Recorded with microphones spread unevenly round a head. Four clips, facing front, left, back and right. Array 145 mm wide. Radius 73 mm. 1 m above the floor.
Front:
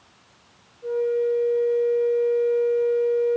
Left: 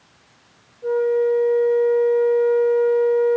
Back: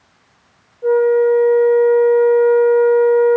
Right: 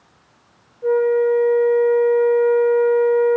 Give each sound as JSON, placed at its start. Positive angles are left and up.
{"t": 0.8, "sound": "a flute", "azimuth_deg": -160, "distance_m": 3.5}